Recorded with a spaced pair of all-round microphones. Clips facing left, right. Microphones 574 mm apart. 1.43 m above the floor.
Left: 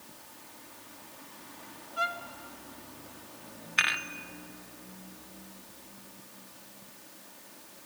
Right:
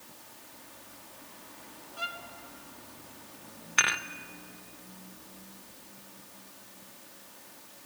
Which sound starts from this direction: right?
Dishes clattering, at 3.8 s.